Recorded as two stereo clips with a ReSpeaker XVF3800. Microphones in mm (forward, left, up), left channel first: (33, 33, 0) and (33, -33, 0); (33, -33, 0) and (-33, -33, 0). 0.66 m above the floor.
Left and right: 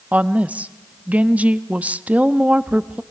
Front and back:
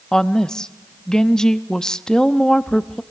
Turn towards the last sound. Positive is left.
turn(degrees=-65)